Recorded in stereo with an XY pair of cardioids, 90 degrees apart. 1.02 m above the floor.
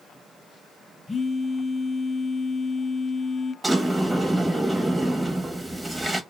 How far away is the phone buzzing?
About 0.6 m.